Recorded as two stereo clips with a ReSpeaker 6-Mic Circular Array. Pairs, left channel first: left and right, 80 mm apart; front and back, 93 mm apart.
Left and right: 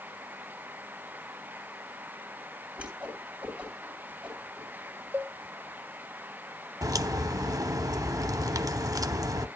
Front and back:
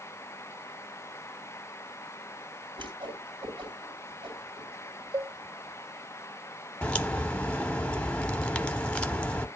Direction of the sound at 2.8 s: 165° right.